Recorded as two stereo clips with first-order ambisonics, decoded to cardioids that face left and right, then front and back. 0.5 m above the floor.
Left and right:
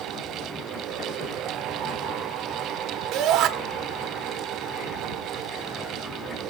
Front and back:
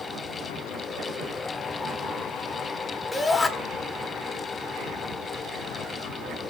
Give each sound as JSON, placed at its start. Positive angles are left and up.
{"t": 3.1, "sound": "a shout", "azimuth_deg": -75, "distance_m": 1.3}